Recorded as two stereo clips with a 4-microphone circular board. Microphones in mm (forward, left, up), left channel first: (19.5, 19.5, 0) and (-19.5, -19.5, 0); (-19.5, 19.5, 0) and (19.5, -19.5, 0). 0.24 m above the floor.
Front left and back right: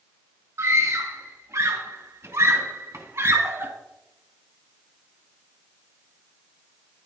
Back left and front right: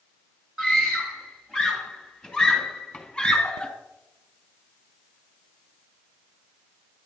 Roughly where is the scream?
Behind right.